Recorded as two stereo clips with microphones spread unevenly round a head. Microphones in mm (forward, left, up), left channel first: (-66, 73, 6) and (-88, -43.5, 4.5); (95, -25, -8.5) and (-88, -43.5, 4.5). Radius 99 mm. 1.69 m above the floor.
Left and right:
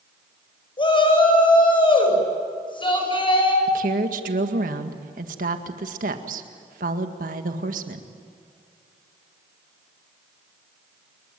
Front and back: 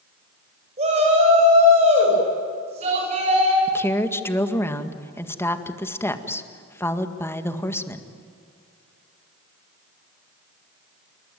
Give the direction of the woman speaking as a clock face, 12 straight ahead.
2 o'clock.